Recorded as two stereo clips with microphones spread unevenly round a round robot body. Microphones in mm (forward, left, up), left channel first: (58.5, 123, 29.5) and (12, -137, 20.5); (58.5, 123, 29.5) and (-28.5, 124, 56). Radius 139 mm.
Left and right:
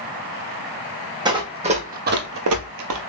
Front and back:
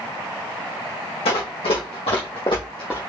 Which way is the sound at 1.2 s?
25° right.